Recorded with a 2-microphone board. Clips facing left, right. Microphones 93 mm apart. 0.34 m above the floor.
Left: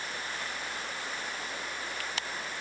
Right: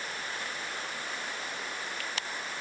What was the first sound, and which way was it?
Only background noise.